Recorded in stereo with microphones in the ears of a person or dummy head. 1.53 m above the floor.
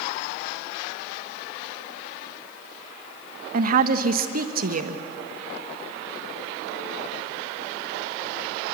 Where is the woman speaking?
50° right (ahead or behind), 1.4 m.